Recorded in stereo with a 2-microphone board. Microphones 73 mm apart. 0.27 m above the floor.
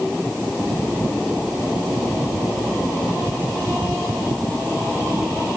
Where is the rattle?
I don't hear a rattle.